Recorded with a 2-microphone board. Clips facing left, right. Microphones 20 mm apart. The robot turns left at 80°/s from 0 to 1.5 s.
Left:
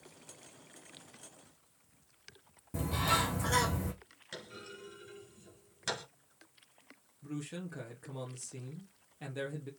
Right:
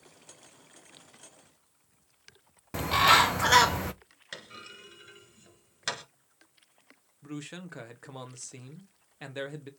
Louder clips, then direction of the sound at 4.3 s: Right 3 dB; 30° right (ahead or behind).